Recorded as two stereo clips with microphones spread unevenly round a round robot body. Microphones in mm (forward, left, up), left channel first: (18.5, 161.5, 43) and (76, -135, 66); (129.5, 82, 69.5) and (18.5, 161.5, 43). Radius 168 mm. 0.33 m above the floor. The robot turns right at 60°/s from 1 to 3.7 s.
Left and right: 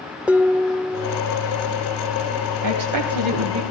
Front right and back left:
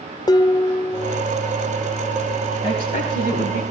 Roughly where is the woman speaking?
Right.